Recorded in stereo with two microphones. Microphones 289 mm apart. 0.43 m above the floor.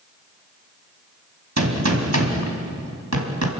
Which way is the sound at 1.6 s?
65° right (ahead or behind).